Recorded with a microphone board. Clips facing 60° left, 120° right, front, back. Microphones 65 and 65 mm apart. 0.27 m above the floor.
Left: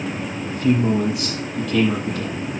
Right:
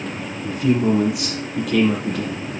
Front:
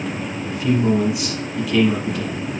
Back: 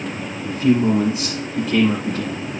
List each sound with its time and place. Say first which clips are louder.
0.4 s a man speaking: right 1 dB, back 2 dB; 125° right, 3.5 m